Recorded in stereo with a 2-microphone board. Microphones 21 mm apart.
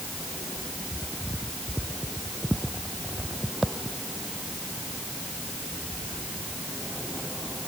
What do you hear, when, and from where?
Only background noise.